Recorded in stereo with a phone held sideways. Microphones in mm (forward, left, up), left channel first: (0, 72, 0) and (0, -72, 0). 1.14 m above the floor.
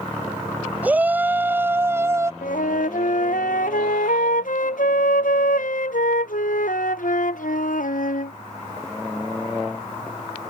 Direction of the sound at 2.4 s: 75° left (ahead or behind).